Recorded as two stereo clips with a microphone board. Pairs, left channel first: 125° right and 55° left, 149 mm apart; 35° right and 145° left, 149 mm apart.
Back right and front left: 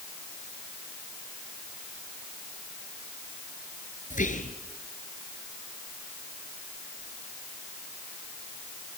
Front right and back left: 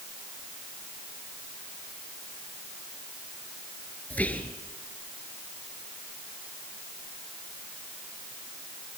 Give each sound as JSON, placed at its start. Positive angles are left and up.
{"t": 4.1, "sound": "whispering", "azimuth_deg": -115, "distance_m": 2.5}